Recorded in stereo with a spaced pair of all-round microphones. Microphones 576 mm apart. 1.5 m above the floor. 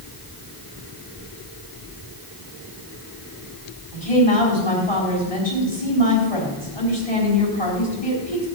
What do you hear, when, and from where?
3.9 s a woman speaking: 70° left (ahead or behind), 4.5 m